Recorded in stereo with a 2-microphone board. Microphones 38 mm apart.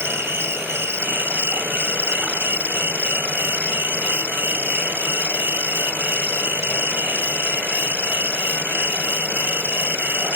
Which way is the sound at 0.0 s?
80° right.